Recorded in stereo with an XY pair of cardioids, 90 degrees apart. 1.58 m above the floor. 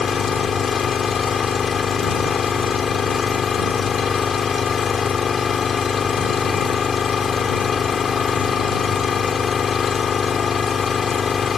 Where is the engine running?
45° left.